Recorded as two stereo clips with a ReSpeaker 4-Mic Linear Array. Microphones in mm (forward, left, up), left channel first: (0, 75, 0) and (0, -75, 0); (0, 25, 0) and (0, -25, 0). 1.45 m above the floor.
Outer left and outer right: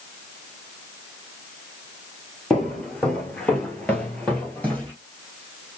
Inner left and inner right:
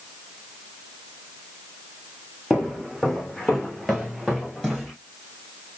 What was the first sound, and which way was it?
Footsteps, 5° left (ahead or behind).